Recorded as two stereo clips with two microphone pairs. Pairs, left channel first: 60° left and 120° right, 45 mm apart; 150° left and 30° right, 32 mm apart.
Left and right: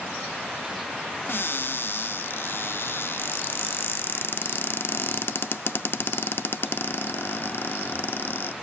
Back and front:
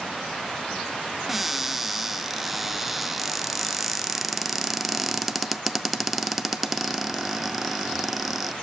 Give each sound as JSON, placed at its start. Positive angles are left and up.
{"t": 1.3, "sound": "a cupboard door", "azimuth_deg": 55, "distance_m": 0.5}